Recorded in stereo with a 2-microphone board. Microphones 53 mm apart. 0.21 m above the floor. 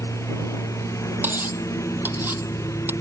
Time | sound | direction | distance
0.0 | a lawn mower | 70° left (ahead or behind) | ?
1.2 | cutlery clinking | 40° right (ahead or behind) | ?